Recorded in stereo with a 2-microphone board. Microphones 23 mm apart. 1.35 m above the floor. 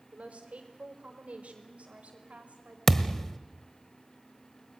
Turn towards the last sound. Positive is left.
turn(degrees=15)  # may be behind; listen again after turning